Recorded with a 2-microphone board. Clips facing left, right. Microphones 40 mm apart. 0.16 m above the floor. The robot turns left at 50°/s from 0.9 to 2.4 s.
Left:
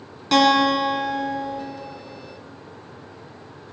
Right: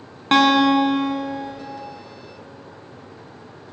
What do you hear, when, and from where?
0.3 s a guitar: 105° right, 1.6 m; by 1.6 s 140° right, 1.6 m